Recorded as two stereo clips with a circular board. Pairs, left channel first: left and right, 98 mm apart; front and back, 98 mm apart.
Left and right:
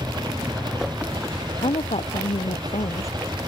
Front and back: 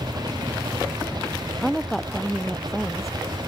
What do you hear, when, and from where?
0.0 s an engine running: 135° right
1.6 s a woman speaking: 90° left